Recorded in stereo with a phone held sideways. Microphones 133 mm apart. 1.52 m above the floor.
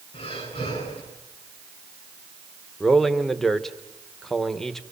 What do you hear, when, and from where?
0.1 s breathing: 50° left (ahead or behind), 9 m
2.8 s a man speaking: centre (ahead or behind), 1.3 m